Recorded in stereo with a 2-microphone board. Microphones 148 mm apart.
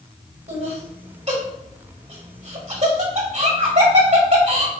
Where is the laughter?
55° right (ahead or behind), 1.9 m.